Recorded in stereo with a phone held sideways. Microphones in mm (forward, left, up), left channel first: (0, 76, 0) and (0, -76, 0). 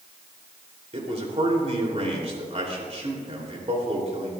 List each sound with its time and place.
0.9 s a man speaking: 45° right (ahead or behind), 3 m